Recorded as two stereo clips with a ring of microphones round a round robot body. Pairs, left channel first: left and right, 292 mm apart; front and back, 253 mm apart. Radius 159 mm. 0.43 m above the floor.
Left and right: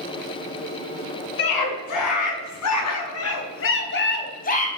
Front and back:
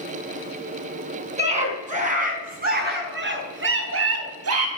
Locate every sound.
1.4 s a scream: 115° left, 6.5 m; by 4.7 s 155° left, 4 m